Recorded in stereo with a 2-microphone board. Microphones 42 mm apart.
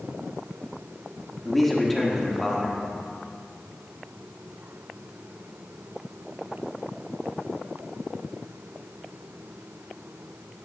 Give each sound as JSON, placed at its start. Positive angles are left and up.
{"t": 1.4, "sound": "a man speaking", "side_deg": 5, "distance_m": 1.4}